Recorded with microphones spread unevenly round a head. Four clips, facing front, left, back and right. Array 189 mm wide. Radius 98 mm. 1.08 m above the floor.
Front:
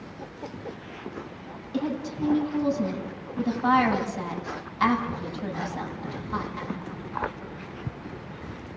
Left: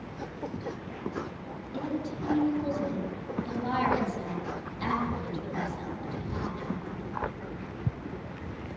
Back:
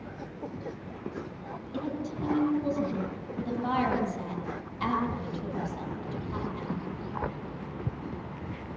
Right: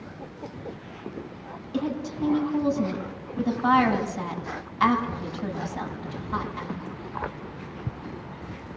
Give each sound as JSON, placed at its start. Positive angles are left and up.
{"t": 1.7, "sound": "a woman speaking", "azimuth_deg": -45, "distance_m": 8.5}